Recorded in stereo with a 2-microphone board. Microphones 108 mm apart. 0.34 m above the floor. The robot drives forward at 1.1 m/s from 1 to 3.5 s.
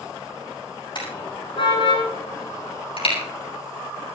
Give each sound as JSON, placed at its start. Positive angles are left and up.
{"t": 0.9, "sound": "a car horn", "side_deg": 50, "distance_m": 8.5}